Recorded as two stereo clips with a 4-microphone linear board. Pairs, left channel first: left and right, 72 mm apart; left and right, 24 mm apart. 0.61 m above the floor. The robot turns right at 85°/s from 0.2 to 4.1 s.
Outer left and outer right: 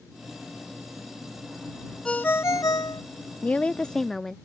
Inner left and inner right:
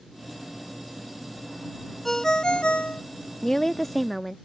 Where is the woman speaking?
20° left (ahead or behind); by 4.4 s 5° left (ahead or behind).